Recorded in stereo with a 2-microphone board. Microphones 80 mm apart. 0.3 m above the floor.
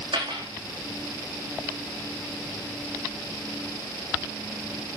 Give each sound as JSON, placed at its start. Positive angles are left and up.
{"t": 0.1, "sound": "a dropped coin", "side_deg": -70, "distance_m": 6.5}